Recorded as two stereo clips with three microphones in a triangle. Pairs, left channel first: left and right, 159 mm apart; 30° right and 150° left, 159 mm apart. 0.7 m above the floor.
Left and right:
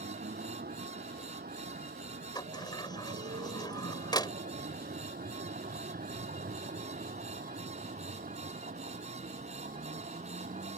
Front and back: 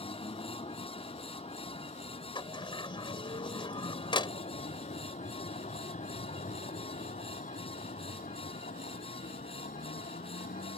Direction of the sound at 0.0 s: 85° right.